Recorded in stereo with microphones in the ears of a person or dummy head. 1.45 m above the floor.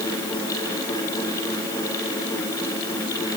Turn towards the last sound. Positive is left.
No sound to turn to.